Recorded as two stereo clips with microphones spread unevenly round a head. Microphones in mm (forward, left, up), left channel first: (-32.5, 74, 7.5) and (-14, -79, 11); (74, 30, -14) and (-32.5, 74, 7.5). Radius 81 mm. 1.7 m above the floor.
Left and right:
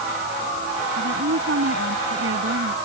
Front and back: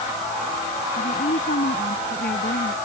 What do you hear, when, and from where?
1.0 s a woman speaking: 60° right